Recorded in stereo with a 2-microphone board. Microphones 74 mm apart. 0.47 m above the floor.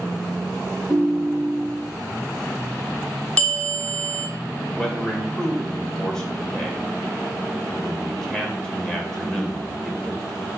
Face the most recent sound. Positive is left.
turn(degrees=10)  # may be behind; listen again after turning